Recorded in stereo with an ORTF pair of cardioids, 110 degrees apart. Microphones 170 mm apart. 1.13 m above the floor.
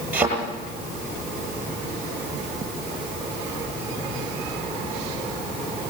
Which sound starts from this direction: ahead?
A thud, at 0.1 s.